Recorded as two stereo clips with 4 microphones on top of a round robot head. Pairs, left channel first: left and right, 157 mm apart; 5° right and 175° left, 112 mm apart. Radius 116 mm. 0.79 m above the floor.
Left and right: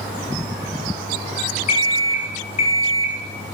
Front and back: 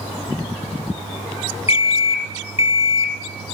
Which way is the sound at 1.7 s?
35° left.